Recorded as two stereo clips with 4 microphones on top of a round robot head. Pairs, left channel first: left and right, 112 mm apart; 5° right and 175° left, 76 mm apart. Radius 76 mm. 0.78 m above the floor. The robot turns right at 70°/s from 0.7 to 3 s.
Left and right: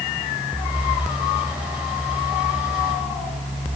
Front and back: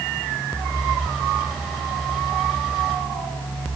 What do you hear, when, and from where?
Only background noise.